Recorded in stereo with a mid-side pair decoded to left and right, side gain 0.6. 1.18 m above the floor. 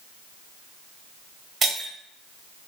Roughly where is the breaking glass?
Ahead right.